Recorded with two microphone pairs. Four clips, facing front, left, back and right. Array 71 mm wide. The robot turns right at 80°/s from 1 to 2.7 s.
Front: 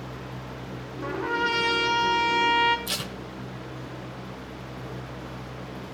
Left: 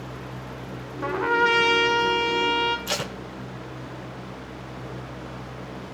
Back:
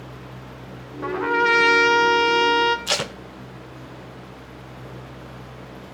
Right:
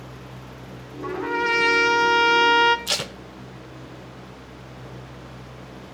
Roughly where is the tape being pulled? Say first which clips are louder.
Left 1 dB, back 8 dB; behind.